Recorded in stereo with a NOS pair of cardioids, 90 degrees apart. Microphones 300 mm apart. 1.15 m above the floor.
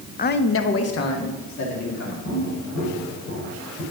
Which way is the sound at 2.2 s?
70° left.